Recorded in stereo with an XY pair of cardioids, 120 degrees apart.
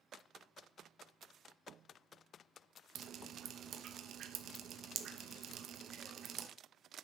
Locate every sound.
3.0 s dripping: 55° right, 0.9 m